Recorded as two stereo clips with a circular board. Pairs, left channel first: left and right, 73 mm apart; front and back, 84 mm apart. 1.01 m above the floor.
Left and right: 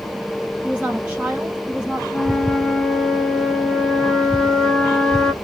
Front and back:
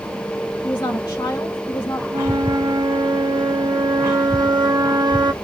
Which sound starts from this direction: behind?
A flute, at 2.1 s.